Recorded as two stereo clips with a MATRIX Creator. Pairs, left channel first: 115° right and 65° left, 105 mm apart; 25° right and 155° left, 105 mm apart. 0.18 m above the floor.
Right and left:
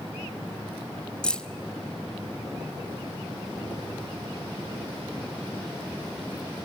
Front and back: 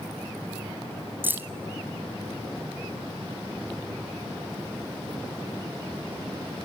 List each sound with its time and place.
1.2 s keys jangling: 175° right, 0.7 m